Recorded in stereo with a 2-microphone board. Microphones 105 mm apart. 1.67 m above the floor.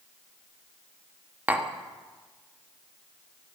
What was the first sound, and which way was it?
Tapping, 15° right (ahead or behind).